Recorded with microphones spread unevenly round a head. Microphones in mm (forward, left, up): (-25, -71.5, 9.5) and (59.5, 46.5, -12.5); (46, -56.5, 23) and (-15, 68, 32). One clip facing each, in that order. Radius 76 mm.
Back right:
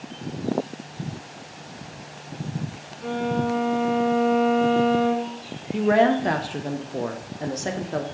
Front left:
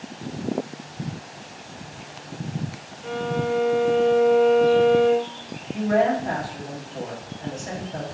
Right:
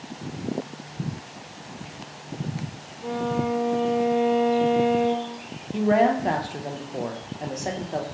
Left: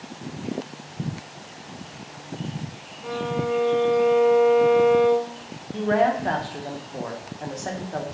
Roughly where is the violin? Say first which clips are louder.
Back right 1 dB, right 1 dB; behind right.